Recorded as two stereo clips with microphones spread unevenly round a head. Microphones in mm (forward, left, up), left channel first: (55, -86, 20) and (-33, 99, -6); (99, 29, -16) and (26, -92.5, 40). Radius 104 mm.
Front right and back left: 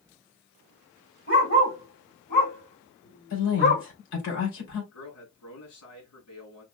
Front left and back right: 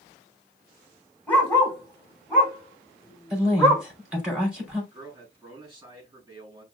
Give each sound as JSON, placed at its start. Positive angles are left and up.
{"t": 1.3, "sound": "a dog barking", "azimuth_deg": -30, "distance_m": 3.0}
{"t": 3.3, "sound": "a woman speaking", "azimuth_deg": -40, "distance_m": 4.0}
{"t": 4.9, "sound": "a man speaking", "azimuth_deg": -50, "distance_m": 4.5}